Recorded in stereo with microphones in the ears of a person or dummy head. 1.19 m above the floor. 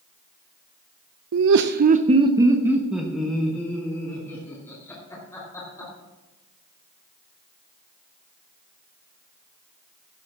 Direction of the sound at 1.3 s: 75° right (ahead or behind).